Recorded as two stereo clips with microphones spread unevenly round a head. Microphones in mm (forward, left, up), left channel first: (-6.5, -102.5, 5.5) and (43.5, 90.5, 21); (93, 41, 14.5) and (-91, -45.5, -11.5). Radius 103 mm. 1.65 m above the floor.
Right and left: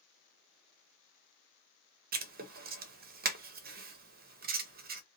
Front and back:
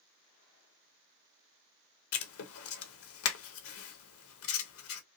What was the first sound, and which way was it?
Writing, 35° left.